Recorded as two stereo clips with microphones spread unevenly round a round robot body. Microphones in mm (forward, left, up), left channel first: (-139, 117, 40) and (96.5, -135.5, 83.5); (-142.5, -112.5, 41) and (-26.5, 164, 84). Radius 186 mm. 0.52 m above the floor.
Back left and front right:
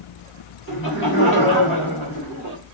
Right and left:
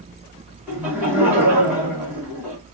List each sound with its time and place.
0.7 s laughter: 160° left, 1.7 m